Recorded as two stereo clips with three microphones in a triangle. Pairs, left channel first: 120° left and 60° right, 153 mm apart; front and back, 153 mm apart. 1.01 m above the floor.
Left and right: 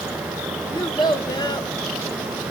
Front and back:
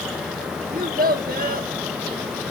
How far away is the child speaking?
About 1.0 m.